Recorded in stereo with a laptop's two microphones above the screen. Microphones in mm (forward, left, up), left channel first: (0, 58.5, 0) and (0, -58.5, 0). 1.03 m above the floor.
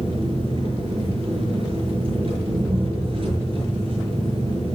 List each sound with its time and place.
0.0 s an engine running: 45° right (ahead or behind), 6.5 m